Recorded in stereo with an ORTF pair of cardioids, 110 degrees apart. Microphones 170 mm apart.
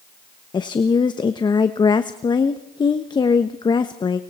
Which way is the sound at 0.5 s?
25° left.